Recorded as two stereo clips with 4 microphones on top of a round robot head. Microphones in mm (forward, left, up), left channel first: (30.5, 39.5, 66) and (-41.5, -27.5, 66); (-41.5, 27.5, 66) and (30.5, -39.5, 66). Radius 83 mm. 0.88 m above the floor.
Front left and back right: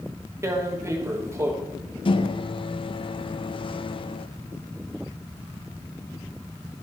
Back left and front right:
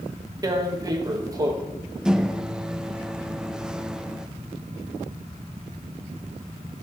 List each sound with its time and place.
0.4 s tearing paper: 85° right, 1.5 m
2.0 s a microwave: 40° left, 0.6 m